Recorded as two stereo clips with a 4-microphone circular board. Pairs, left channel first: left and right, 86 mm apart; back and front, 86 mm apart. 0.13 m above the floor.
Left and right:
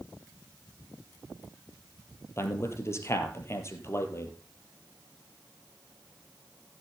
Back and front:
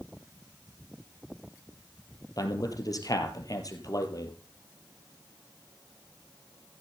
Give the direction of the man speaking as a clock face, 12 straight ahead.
7 o'clock.